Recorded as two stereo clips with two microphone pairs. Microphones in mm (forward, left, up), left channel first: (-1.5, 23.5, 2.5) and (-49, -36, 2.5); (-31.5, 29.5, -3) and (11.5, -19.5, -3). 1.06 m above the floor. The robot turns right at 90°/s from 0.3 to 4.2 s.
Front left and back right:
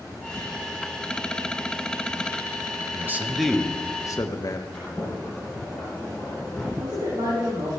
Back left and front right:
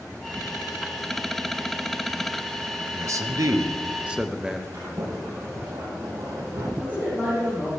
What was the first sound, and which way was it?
A man speaking, 85° right.